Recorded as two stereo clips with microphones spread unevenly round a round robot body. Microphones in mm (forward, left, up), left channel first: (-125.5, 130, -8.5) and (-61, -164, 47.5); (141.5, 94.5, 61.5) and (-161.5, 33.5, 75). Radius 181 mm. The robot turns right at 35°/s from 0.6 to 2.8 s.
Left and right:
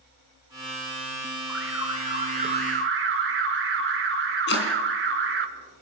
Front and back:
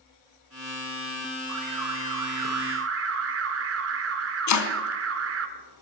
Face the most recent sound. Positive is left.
turn(degrees=40)